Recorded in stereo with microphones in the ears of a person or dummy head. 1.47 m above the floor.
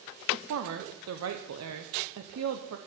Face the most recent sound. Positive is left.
turn(degrees=-80)